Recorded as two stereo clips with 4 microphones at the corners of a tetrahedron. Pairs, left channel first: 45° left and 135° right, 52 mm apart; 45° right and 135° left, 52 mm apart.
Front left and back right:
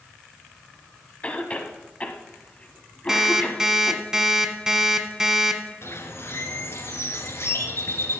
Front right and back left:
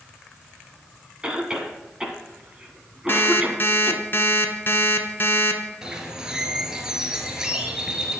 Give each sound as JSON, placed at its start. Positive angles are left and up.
{"t": 1.2, "sound": "a cough", "azimuth_deg": 75, "distance_m": 1.5}
{"t": 3.1, "sound": "an alarm clock", "azimuth_deg": -60, "distance_m": 1.3}
{"t": 5.8, "sound": "a bird", "azimuth_deg": 60, "distance_m": 1.5}